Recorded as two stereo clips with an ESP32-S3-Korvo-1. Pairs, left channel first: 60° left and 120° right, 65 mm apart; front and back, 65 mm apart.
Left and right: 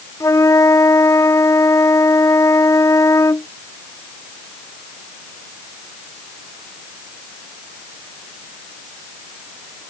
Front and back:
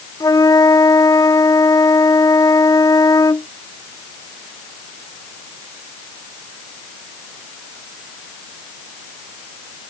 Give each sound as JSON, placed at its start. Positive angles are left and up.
{"t": 0.2, "sound": "a flute", "azimuth_deg": 25}